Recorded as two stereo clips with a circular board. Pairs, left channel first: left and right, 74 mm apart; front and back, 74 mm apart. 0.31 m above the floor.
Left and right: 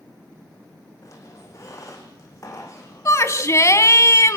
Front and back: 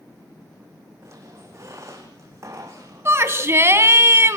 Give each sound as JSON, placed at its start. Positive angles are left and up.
{"t": 1.0, "sound": "a squeak", "azimuth_deg": 130, "distance_m": 5.0}
{"t": 3.0, "sound": "a shout", "azimuth_deg": 130, "distance_m": 2.5}